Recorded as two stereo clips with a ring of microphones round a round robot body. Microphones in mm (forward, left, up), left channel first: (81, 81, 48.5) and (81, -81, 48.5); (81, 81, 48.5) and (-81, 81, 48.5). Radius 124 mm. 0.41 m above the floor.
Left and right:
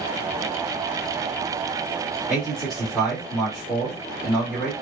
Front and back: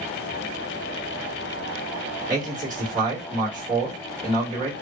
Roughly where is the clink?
No clink in this recording.